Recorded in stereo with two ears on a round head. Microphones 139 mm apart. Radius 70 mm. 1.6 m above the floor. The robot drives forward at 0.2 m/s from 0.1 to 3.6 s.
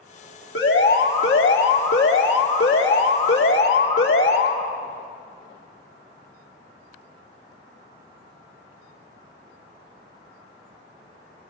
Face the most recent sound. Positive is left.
turn(degrees=85)